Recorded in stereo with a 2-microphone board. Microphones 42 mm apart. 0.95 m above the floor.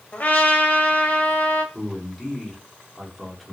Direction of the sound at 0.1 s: 45° left (ahead or behind).